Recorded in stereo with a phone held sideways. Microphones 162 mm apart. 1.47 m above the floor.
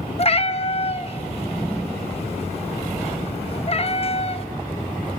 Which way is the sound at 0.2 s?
40° left (ahead or behind).